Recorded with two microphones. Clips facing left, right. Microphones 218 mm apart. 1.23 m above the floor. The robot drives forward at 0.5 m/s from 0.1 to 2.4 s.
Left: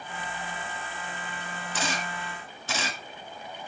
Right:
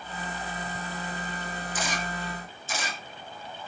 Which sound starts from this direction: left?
A camera shutter, at 1.7 s.